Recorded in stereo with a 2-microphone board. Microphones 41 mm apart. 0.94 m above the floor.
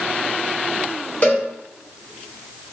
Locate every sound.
1.2 s a cowbell: 40° left (ahead or behind), 2.0 m